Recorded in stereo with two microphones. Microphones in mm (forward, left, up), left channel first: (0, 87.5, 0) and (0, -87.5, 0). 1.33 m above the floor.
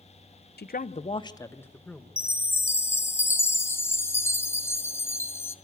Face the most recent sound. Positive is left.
turn(degrees=15)  # may be behind; listen again after turning